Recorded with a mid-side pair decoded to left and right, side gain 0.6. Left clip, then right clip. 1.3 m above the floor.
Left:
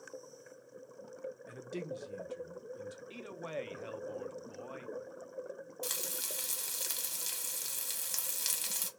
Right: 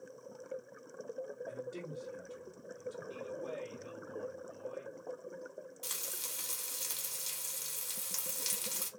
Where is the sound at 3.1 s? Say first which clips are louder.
Left 2 dB; 50° left, 0.6 m.